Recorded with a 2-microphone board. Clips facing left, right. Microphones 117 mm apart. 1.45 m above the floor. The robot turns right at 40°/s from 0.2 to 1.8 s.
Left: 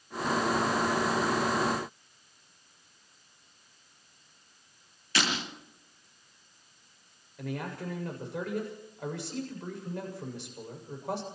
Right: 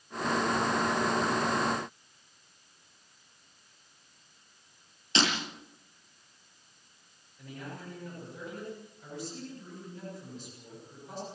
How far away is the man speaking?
About 7 m.